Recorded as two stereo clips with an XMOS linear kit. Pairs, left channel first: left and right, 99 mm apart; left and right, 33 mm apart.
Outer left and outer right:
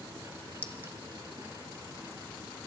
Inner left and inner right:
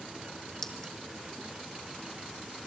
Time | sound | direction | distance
0.6 | a clink | 15° left (ahead or behind) | 1.3 m